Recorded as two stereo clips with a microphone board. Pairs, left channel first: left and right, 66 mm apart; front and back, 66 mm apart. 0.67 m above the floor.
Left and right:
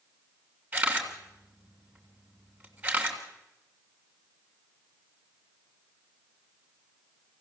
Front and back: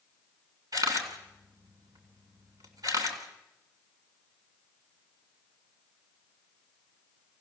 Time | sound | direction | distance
0.7 | a camera shutter | 160° right | 3 m